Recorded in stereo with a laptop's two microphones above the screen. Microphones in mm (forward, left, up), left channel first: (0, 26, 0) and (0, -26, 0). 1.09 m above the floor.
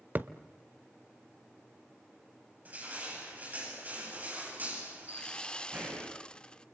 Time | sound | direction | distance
0.1 | a thud | 40° right (ahead or behind) | 1.0 m
2.6 | crushing | 35° right (ahead or behind) | 9 m
5.1 | sawing | 20° left (ahead or behind) | 0.7 m